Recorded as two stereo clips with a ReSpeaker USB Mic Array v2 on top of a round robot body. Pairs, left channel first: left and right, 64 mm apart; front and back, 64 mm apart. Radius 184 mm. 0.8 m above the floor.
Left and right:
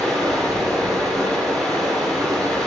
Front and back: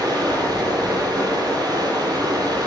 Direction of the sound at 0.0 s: Straight behind.